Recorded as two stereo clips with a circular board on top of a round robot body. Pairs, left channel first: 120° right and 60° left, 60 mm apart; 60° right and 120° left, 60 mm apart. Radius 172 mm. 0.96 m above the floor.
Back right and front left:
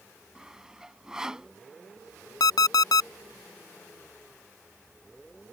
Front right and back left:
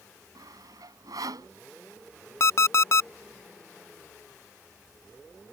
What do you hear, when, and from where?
0.3 s sawing: 140° left
2.4 s an alarm clock: 105° right